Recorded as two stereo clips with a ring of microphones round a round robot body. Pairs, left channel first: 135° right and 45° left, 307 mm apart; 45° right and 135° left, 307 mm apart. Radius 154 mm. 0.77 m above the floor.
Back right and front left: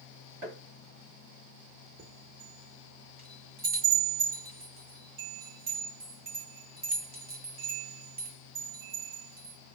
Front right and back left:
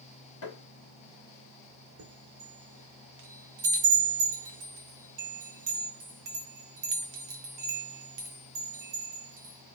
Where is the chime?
105° left, 0.8 m.